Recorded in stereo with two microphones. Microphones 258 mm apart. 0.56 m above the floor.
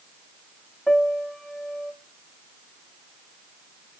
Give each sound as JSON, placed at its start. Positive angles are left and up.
{"t": 0.9, "sound": "a piano", "side_deg": 0, "distance_m": 0.8}